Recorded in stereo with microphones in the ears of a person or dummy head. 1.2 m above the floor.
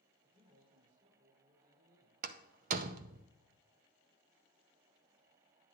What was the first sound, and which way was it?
A man speaking, 25° right (ahead or behind).